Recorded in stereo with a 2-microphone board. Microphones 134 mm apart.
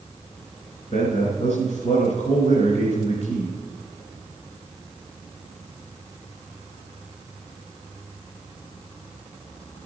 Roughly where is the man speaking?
Left.